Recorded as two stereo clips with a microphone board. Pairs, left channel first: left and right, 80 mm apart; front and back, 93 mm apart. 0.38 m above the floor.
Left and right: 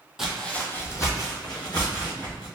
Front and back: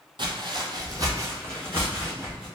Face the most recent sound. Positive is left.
turn(degrees=105)